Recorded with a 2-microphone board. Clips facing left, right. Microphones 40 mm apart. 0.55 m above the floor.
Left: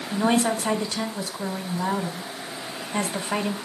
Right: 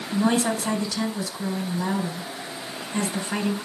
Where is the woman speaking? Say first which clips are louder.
Even; 35° left (ahead or behind), 2 m.